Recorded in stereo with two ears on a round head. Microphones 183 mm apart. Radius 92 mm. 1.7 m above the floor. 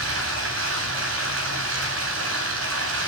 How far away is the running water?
About 9.5 m.